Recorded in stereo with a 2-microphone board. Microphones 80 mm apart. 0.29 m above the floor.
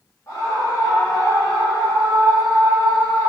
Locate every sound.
0.3 s a scream: 40° left (ahead or behind), 3 m; by 3.3 s 60° left (ahead or behind), 5.5 m